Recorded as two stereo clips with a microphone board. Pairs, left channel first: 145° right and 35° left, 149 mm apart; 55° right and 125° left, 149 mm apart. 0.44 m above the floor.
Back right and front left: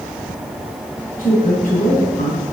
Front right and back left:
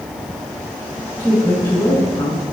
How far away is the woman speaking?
About 5.5 m.